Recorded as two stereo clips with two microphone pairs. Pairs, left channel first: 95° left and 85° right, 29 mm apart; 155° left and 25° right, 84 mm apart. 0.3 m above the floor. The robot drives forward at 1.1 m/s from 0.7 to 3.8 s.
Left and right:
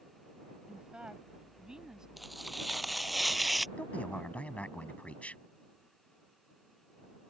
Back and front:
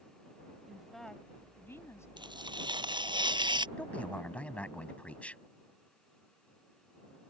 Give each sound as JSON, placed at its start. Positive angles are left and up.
{"t": 0.7, "sound": "a woman speaking", "azimuth_deg": -100}
{"t": 2.2, "sound": "tearing paper", "azimuth_deg": 0}
{"t": 3.8, "sound": "a man speaking", "azimuth_deg": 85}